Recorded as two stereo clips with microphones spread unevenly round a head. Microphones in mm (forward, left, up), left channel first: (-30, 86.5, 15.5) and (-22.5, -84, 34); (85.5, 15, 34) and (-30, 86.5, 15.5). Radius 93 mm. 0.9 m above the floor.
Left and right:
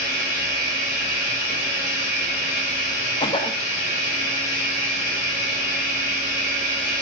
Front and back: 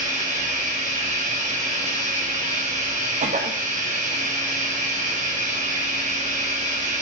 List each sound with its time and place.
0.0 s running water: 120° left, 4.5 m
3.2 s a cough: 150° left, 0.7 m